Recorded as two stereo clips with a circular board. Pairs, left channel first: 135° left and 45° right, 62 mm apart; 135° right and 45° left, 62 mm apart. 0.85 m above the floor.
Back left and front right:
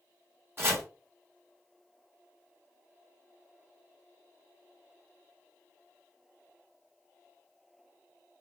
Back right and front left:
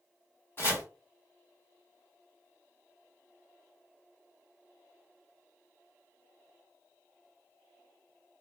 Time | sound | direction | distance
0.6 | chopping | 90° right | 1.2 m